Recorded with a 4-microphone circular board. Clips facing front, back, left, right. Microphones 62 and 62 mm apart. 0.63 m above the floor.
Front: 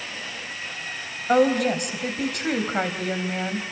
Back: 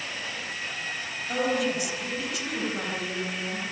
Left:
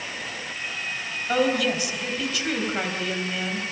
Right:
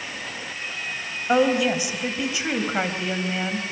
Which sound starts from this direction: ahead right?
A woman speaking, at 1.3 s.